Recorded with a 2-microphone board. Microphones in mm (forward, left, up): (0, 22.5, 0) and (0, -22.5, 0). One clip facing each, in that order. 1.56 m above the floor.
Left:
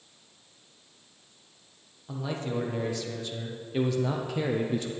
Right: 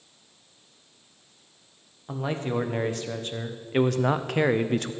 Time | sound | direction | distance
2.1 | a man speaking | 40° right (ahead or behind) | 1.6 m